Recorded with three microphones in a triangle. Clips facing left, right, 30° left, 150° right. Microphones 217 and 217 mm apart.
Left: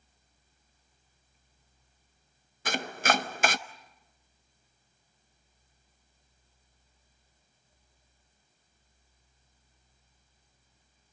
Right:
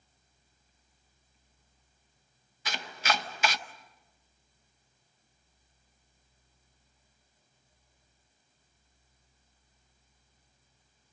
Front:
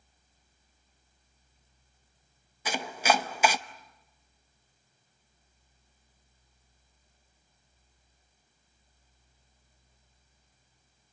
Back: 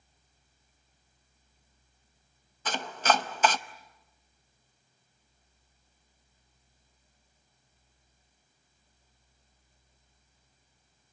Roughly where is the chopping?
Left.